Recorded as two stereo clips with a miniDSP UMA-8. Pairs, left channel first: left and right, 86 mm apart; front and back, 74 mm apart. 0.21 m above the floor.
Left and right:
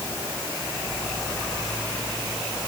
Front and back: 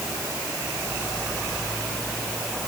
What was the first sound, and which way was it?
Only background noise.